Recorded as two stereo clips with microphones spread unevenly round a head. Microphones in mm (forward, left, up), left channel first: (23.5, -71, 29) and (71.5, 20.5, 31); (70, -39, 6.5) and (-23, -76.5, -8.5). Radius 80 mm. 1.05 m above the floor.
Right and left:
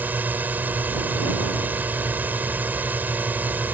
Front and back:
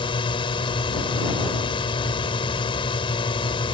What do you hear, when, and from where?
0.0 s a drone: 10° right